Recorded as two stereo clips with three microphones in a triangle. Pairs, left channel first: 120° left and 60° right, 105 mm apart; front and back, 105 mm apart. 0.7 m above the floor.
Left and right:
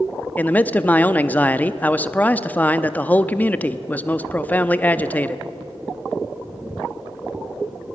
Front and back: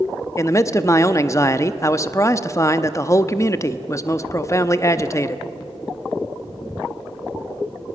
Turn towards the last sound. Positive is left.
turn(degrees=50)